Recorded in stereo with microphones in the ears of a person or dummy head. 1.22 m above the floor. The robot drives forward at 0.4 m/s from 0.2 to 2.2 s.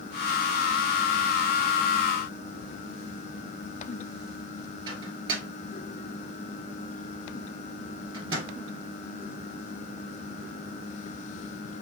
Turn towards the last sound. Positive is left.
turn(degrees=-25)  # may be behind; listen again after turning